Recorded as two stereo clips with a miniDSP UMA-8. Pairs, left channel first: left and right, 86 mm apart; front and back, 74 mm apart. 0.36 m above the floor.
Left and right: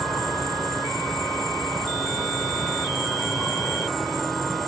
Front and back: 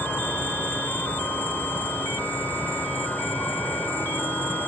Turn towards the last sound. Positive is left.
turn(degrees=5)